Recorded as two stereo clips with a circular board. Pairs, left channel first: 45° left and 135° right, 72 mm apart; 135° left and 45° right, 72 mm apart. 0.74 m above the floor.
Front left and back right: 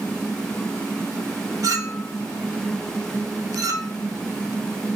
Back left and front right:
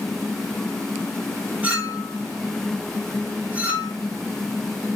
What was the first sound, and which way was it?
A clink, 110° right.